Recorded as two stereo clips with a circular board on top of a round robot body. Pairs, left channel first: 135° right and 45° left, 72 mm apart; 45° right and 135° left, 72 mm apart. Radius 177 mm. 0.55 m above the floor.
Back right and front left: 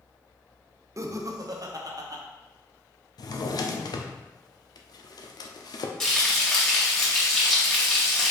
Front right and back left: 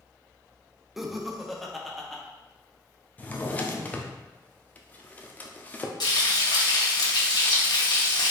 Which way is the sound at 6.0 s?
50° right.